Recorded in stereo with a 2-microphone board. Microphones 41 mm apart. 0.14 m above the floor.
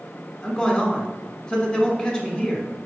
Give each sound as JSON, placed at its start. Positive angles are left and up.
{"t": 0.4, "sound": "a man speaking", "side_deg": 15, "distance_m": 1.2}